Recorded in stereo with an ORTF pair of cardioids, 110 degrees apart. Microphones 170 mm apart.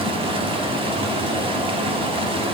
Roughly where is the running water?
Ahead right.